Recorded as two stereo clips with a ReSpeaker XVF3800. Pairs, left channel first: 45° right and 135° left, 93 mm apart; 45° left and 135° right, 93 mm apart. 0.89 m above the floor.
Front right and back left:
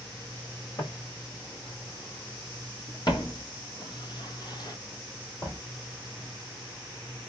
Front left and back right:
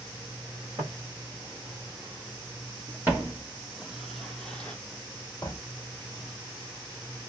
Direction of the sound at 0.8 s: 90° right.